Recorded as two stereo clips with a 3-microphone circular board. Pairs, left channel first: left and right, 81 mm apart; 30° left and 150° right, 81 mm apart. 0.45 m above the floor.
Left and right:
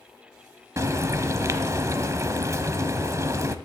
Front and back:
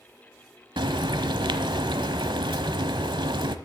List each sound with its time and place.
0.8 s frying: 140° right, 0.8 m